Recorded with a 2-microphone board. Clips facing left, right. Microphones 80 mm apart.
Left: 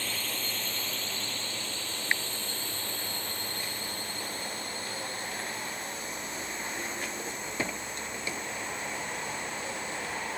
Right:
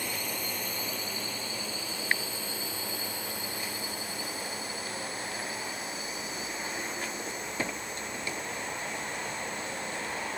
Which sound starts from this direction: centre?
A drone, at 0.0 s.